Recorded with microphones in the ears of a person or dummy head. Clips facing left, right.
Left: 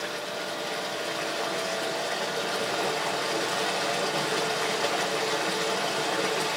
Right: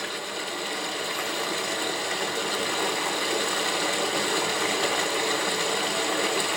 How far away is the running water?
About 1.0 m.